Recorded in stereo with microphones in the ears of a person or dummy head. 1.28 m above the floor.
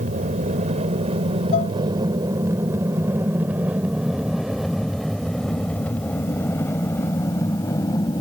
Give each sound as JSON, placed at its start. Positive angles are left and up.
{"t": 0.0, "sound": "an aircraft", "side_deg": -40}
{"t": 1.5, "sound": "dishes clattering", "side_deg": 40}